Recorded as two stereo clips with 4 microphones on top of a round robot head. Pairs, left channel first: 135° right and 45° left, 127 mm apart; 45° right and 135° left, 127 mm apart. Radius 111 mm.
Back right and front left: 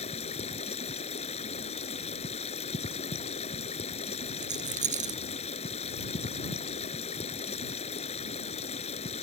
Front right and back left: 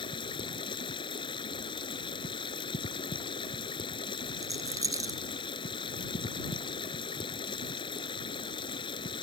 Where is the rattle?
70° left.